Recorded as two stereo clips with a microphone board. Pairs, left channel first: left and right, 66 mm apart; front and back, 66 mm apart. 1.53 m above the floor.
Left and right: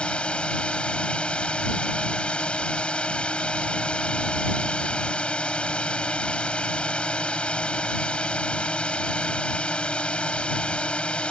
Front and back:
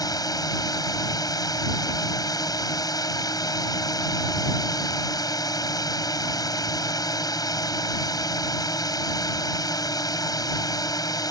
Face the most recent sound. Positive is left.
turn(degrees=15)